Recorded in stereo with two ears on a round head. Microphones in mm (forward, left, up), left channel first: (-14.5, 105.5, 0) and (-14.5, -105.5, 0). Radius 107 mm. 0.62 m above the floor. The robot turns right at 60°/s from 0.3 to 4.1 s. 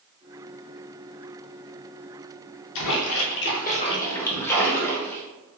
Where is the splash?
90° left, 0.8 m; by 5.2 s 170° left, 0.8 m.